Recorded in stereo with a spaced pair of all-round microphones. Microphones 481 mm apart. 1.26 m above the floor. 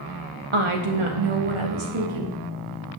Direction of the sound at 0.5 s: 75° right (ahead or behind).